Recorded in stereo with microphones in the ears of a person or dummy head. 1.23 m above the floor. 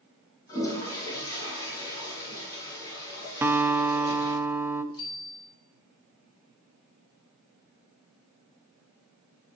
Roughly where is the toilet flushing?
Left.